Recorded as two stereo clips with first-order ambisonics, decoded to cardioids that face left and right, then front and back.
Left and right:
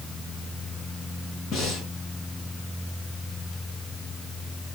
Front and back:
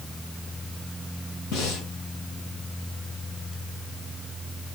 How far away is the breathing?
About 3 m.